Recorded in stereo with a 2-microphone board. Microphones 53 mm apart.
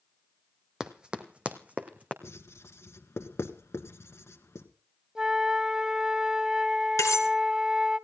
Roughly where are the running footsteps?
Centre.